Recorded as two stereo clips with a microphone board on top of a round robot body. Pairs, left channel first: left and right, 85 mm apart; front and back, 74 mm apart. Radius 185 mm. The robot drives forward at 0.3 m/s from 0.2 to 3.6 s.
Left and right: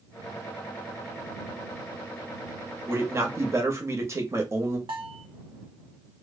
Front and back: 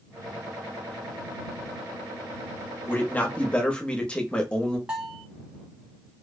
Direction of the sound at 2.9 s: 45° right.